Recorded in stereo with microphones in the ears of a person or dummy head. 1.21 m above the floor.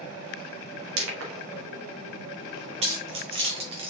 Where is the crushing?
80° right, 1.2 m.